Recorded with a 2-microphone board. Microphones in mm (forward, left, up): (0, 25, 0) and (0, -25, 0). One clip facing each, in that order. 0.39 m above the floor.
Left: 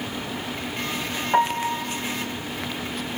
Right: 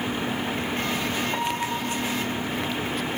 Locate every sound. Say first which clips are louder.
1.3 s a piano: left 6 dB; 30° left (ahead or behind), 6 m